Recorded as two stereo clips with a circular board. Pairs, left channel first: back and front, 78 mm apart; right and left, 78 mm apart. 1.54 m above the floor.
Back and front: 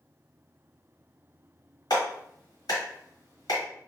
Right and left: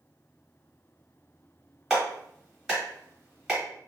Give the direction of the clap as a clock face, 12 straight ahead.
6 o'clock.